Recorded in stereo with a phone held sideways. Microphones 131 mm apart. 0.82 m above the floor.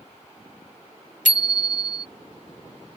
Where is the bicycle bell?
85° left.